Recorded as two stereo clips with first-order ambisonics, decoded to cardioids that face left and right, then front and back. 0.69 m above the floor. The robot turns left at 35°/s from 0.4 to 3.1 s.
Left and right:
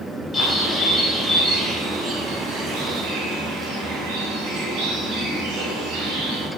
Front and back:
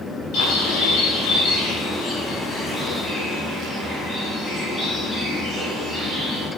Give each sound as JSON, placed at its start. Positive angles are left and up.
{"t": 0.3, "sound": "a bird", "azimuth_deg": 10, "distance_m": 3.0}